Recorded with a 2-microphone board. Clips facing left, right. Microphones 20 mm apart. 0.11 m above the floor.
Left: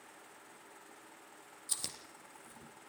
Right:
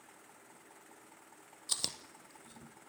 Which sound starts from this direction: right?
Chewing, at 1.7 s.